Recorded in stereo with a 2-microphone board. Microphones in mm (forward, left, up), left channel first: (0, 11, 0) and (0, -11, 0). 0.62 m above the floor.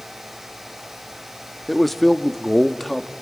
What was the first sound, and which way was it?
A man speaking, 10° left (ahead or behind).